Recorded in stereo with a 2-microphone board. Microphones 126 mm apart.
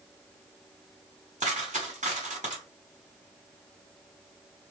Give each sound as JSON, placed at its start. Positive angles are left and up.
{"t": 1.4, "sound": "a dropped coin", "side_deg": -85, "distance_m": 1.4}